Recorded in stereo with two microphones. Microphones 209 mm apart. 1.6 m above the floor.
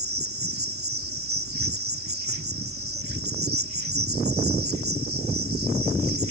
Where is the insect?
80° right.